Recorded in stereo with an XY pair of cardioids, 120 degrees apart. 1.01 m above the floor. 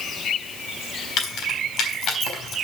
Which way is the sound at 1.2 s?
65° left.